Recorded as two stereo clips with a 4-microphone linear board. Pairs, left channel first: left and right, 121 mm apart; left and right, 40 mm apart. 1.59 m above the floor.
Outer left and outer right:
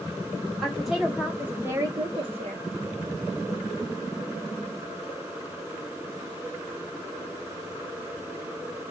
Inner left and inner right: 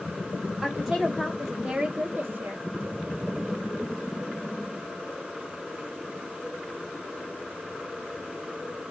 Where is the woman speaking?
Centre (ahead or behind), 2 m; by 2.6 s 55° right (ahead or behind), 0.9 m.